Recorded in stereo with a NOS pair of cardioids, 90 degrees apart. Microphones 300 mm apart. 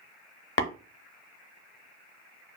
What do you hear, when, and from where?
0.6 s tapping: 40° left, 0.7 m